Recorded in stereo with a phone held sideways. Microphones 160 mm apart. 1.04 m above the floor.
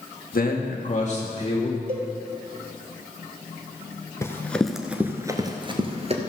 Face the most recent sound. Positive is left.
turn(degrees=-40)  # may be behind; listen again after turning